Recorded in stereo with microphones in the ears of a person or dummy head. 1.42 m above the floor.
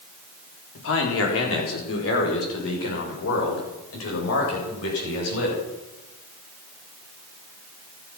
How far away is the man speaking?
About 4 m.